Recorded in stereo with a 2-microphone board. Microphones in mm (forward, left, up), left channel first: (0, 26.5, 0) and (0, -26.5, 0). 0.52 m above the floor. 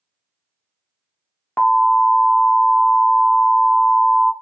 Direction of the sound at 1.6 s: 30° left (ahead or behind).